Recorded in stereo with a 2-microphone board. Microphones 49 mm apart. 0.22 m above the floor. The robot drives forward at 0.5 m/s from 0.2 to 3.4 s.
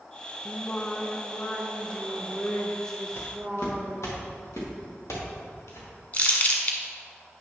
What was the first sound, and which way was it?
Singing, 35° left (ahead or behind).